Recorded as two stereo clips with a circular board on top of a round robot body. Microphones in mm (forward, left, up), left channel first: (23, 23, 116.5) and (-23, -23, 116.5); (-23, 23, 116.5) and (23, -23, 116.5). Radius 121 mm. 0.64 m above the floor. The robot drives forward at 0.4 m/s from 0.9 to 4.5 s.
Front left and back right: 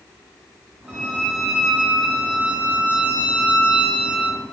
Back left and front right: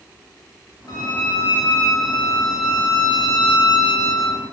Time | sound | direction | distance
0.9 | a violin | 145° left | 3 m